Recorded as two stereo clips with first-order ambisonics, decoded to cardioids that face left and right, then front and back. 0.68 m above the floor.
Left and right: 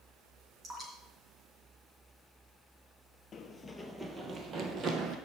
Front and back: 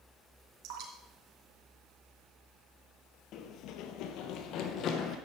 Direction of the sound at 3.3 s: 30° left.